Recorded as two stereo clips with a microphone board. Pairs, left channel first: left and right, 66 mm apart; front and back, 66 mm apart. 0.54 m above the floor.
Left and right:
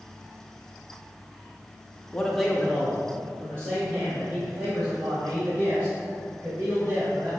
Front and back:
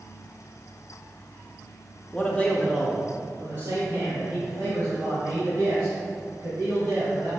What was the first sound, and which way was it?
A man speaking, 20° left.